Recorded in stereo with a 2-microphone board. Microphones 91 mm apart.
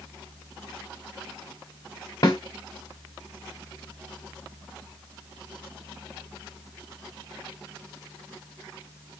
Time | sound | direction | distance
2.2 | a snare drum | 45° left (ahead or behind) | 1.2 m